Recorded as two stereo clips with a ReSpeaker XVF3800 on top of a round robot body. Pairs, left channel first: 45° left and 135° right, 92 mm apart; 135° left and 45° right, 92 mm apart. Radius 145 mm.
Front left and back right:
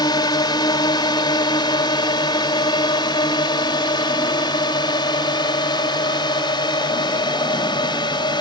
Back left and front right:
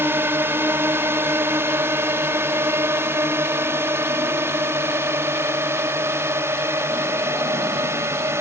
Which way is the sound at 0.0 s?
15° left.